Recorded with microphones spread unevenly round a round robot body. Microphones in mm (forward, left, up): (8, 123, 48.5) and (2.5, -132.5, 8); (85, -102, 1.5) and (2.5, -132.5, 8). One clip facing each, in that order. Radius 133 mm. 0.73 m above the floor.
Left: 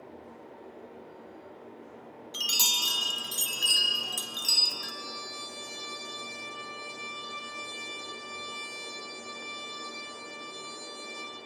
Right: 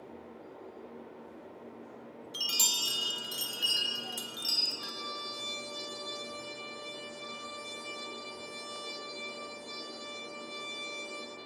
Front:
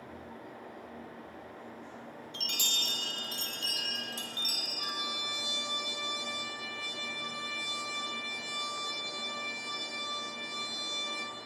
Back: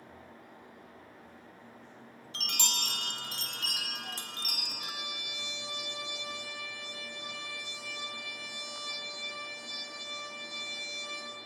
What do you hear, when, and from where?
2.3 s a chime: 165° left, 1.2 m
4.8 s a trumpet: 30° right, 9 m